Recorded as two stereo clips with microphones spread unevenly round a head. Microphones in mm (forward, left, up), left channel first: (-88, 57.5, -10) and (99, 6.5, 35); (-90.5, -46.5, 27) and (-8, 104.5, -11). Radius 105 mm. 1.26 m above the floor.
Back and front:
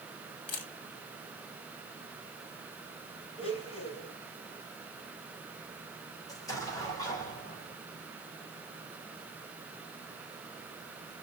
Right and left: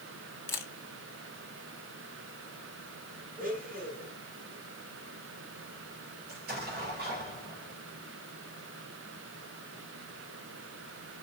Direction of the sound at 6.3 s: 90° left.